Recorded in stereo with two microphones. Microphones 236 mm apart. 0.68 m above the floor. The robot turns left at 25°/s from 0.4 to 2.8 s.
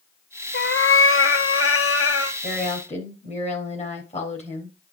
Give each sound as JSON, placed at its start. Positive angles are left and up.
{"t": 0.5, "sound": "a cat meowing", "azimuth_deg": 125, "distance_m": 0.8}
{"t": 2.4, "sound": "a woman speaking", "side_deg": 35, "distance_m": 4.5}